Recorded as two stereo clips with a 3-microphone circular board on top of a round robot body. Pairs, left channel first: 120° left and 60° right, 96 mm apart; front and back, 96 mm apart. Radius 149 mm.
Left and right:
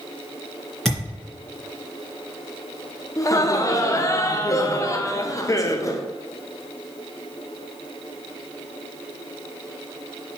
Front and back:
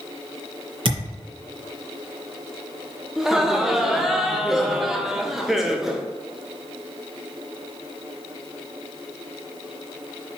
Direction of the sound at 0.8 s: 155° right.